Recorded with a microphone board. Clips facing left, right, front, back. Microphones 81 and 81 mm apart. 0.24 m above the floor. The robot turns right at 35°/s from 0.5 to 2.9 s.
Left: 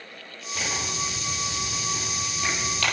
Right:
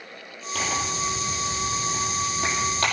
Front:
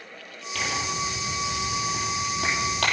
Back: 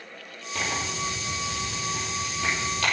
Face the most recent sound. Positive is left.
turn(degrees=-25)